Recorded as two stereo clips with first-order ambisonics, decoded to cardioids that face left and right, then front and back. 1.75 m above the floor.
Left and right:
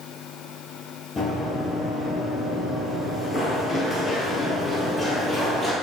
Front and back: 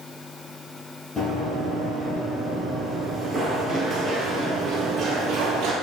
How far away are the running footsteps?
About 1.9 m.